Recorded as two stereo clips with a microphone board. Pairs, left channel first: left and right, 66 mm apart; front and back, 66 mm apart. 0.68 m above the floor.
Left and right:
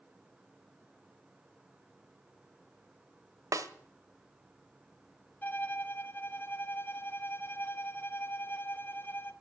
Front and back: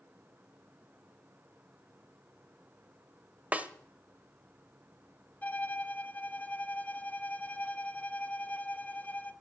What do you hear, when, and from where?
3.5 s a snare drum: 110° right, 0.8 m
5.4 s a violin: 50° left, 0.8 m